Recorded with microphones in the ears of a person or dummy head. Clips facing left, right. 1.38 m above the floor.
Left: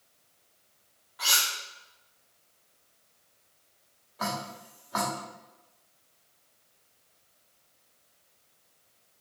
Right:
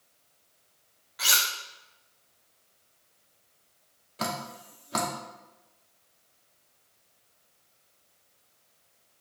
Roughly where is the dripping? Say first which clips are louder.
Even; right.